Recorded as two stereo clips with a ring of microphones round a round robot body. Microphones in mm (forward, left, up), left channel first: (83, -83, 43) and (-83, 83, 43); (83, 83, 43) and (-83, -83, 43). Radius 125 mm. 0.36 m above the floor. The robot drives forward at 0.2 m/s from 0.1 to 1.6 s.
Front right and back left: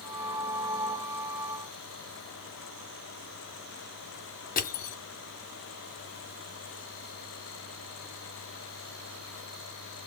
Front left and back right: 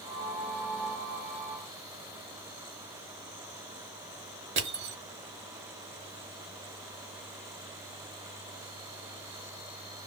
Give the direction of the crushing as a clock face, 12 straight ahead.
3 o'clock.